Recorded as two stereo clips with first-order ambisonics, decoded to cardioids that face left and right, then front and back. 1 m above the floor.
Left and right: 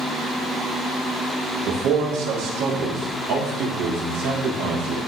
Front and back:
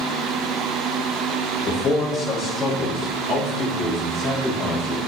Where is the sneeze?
I don't hear a sneeze.